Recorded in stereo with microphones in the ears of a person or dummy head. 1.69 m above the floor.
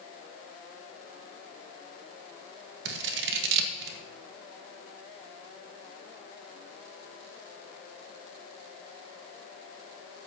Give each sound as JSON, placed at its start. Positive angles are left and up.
{"t": 2.9, "sound": "scissors", "side_deg": -65, "distance_m": 1.4}